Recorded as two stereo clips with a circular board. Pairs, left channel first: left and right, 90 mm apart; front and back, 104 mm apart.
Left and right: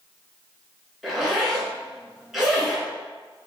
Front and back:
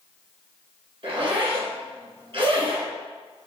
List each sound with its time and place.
1.0 s a zipper: 175° right, 2.5 m